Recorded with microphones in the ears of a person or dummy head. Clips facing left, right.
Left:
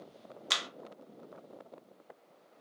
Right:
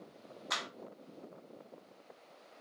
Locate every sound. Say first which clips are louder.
0.5 s a clap: even; 40° left (ahead or behind), 0.6 m